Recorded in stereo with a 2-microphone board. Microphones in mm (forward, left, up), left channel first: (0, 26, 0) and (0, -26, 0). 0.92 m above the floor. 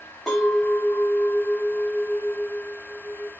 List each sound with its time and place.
0.3 s a clink: 5° left (ahead or behind), 1.6 m